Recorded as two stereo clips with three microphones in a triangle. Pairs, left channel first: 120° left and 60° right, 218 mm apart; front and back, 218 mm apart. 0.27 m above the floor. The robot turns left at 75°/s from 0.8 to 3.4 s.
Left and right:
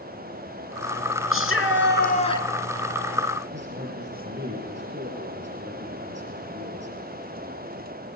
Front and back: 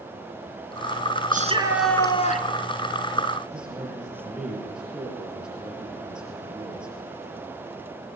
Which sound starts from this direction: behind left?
A shout, at 1.3 s.